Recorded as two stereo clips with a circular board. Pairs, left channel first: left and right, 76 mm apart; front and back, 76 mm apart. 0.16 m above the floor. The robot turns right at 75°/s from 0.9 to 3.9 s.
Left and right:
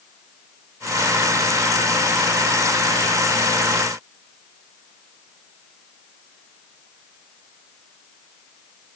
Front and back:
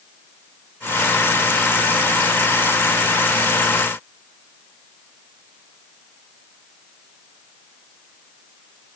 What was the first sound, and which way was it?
Only background noise.